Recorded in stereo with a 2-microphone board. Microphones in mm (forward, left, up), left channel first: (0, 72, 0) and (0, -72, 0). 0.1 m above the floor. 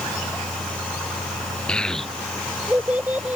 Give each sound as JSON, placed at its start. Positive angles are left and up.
{"t": 1.7, "sound": "a child speaking", "side_deg": 5}